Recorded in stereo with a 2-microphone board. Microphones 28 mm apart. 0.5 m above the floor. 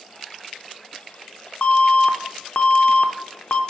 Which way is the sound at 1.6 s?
55° left (ahead or behind).